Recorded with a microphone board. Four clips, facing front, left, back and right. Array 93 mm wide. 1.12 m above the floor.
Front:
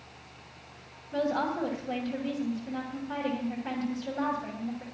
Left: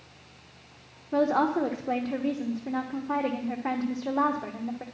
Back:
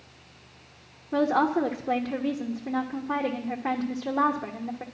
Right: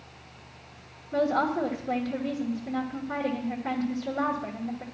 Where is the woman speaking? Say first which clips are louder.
Left 1 dB, back 6 dB; 145° left, 1.1 m.